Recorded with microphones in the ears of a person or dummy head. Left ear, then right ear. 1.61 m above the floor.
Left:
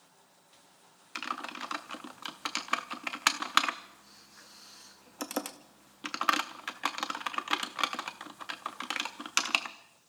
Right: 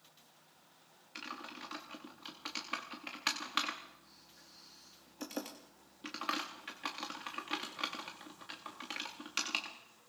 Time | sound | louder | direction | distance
1.1 | typing on a keyboard | left 9 dB | 40° left (ahead or behind) | 0.7 m